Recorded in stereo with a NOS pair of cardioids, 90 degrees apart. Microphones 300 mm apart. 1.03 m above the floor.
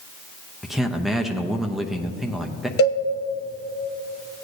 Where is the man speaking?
Straight ahead, 0.6 m.